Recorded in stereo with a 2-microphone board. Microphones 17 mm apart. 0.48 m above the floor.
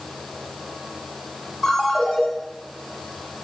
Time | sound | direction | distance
1.6 | a ringtone | 50° left (ahead or behind) | 1.6 m